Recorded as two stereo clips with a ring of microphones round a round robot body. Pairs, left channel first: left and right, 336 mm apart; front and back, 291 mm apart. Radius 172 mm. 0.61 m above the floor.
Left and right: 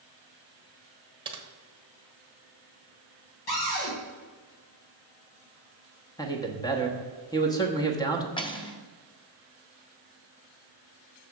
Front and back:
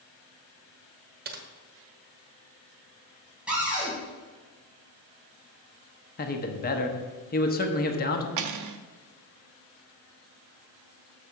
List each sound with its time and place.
1.2 s typing on a keyboard: 155° right, 1.0 m
3.5 s a cupboard door: 95° left, 3.5 m
6.2 s a man speaking: 20° left, 1.0 m
8.4 s cutlery clinking: 165° left, 0.7 m